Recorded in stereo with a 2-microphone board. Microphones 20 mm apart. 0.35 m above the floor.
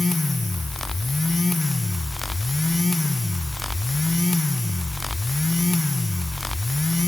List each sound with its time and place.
Only background noise.